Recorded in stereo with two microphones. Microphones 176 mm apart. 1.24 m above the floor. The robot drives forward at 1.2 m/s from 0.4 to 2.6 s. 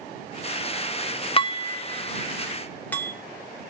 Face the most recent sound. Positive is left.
turn(degrees=10)  # may be behind; listen again after turning